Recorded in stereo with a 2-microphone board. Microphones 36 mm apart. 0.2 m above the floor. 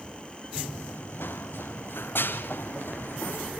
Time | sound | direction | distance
0.6 | running footsteps | 75° left (ahead or behind) | 1.5 m